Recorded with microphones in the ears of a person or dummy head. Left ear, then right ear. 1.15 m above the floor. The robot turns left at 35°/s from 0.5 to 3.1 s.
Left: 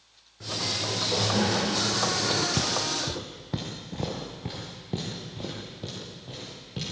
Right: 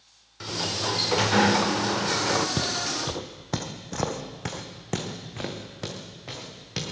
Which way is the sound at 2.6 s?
Centre (ahead or behind).